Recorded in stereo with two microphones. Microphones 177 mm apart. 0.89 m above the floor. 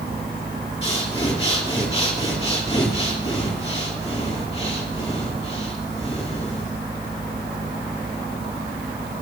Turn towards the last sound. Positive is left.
turn(degrees=35)  # may be behind; listen again after turning